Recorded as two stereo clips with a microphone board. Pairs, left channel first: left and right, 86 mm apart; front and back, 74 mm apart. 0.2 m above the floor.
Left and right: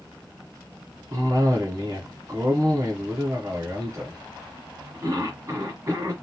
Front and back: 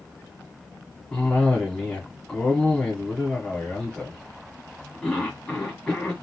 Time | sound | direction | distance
1.1 | a cough | 75° right | 1.4 m